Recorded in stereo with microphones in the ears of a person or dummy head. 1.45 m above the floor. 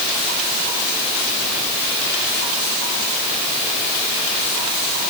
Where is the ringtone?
No ringtone in this recording.